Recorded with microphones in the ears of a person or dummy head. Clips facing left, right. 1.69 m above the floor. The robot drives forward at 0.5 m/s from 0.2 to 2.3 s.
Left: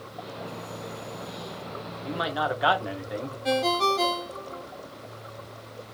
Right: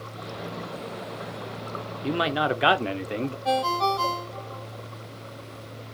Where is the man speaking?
40° right (ahead or behind), 0.5 m; by 3.4 s 35° right (ahead or behind), 0.6 m.